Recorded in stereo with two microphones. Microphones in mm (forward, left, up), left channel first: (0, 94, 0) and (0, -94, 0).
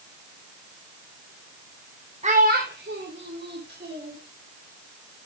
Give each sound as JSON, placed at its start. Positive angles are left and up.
{"t": 2.2, "sound": "a child speaking", "side_deg": -35, "distance_m": 1.1}